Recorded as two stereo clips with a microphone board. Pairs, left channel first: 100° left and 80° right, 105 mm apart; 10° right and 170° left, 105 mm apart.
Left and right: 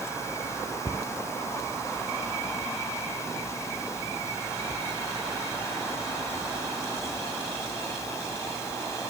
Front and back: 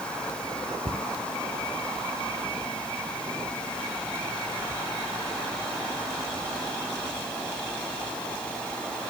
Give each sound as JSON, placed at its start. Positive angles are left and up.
{"t": 0.8, "sound": "a cupboard door", "azimuth_deg": 160}